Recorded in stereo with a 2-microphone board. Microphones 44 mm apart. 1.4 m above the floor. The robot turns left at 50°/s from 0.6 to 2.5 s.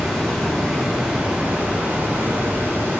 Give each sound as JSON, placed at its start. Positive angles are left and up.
{"t": 0.0, "sound": "running water", "azimuth_deg": 5, "distance_m": 1.0}